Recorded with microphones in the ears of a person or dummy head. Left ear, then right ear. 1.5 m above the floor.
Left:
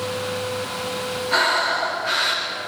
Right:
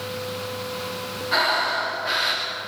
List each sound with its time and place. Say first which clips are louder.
1.3 s breathing: left 2 dB; 5° right (ahead or behind), 4 m